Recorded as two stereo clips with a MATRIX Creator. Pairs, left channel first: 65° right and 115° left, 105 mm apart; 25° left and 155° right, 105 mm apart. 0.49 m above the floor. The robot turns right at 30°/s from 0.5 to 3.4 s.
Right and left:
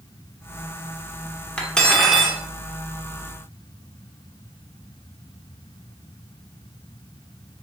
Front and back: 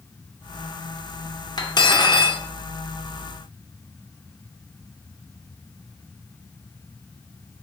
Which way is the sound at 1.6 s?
5° left.